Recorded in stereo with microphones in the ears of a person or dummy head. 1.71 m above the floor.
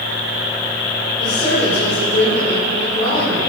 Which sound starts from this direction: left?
A woman speaking, at 1.2 s.